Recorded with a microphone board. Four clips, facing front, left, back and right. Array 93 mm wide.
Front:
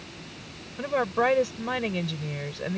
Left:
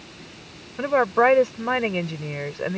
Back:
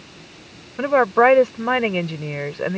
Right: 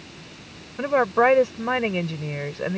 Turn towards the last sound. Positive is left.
turn(degrees=180)